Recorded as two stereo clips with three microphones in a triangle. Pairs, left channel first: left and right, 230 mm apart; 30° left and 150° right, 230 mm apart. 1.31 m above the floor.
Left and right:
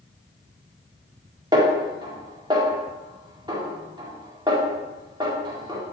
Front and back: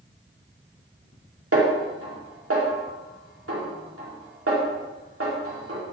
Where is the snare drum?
160° right, 2 m.